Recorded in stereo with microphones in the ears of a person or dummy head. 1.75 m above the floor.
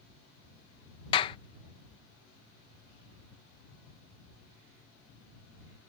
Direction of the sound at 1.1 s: 30° left (ahead or behind).